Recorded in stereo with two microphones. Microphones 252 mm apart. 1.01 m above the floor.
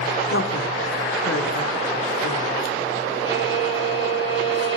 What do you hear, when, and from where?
0.3 s a woman speaking: 55° left (ahead or behind), 3 m
3.2 s a violin: 50° left (ahead or behind), 7.5 m